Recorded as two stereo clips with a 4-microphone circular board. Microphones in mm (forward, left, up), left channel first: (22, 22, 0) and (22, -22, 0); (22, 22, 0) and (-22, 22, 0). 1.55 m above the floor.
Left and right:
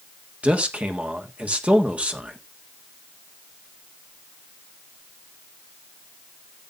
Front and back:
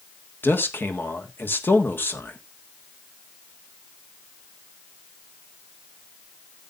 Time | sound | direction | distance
0.4 | a man speaking | 30° right | 1.5 m